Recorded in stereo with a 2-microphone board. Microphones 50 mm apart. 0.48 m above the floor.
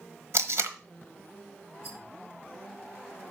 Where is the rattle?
60° right (ahead or behind), 5 m.